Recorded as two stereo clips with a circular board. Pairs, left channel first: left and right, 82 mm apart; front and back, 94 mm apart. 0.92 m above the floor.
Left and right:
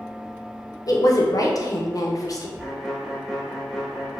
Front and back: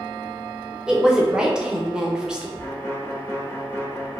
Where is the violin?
5° right, 0.6 m.